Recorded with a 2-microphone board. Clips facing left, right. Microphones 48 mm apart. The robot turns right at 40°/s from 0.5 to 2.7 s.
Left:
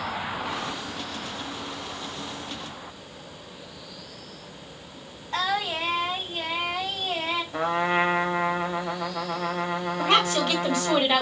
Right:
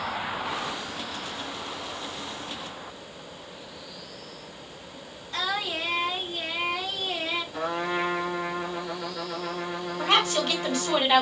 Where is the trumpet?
45° left (ahead or behind), 0.6 m.